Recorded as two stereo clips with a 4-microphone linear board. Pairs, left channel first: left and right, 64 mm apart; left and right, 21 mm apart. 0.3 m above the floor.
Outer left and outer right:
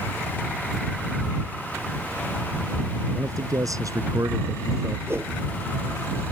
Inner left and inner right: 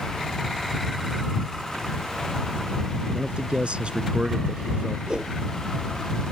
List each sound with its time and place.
3.1 s a man speaking: 65° right (ahead or behind); by 5.0 s 55° right (ahead or behind)
5.1 s a whoosh: 40° right (ahead or behind)